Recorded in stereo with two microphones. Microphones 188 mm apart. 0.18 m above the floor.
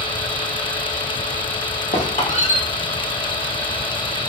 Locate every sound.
1.9 s a squeak: 40° left (ahead or behind), 3.5 m